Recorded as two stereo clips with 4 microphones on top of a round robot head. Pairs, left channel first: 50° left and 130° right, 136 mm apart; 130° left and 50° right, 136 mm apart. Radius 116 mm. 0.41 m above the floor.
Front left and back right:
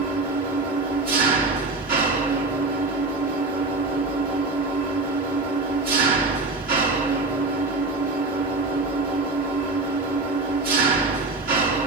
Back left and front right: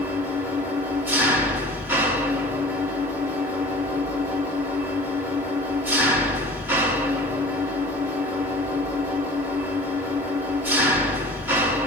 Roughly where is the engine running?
Behind right.